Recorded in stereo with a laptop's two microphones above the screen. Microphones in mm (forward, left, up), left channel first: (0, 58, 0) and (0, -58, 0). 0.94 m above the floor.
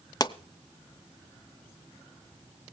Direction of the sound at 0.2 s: 35° left (ahead or behind).